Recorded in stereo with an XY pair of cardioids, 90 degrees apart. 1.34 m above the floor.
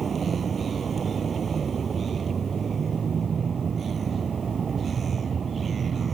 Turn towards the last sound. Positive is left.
turn(degrees=-50)